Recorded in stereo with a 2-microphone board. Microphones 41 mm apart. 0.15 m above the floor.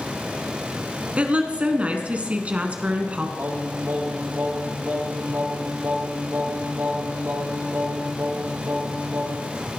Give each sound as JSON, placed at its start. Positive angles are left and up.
{"t": 1.2, "sound": "a woman speaking", "side_deg": -35, "distance_m": 1.2}
{"t": 3.4, "sound": "singing", "side_deg": -75, "distance_m": 6.0}